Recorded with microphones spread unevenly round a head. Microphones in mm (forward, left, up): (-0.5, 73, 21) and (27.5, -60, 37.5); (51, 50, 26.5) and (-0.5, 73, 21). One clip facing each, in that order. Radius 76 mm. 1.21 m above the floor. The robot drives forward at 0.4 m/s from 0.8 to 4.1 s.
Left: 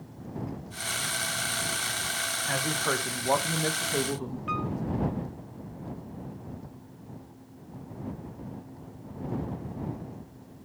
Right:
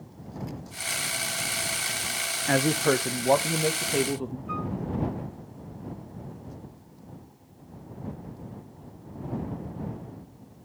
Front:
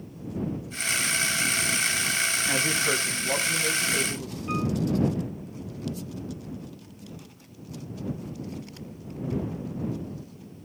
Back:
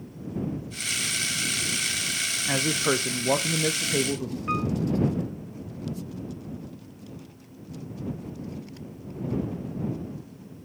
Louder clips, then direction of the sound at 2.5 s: Right 8 dB, back 4 dB; 120° right.